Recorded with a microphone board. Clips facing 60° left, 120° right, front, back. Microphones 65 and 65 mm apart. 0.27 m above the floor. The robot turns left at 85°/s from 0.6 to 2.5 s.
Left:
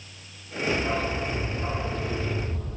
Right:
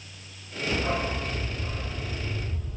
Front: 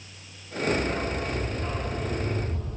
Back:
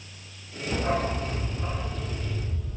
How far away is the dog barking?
About 3.5 m.